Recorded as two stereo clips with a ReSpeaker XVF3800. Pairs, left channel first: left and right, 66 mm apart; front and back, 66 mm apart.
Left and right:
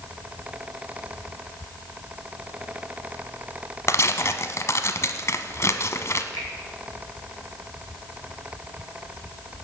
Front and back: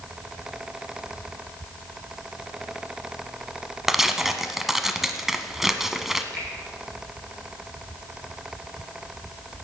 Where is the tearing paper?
100° left, 0.8 m.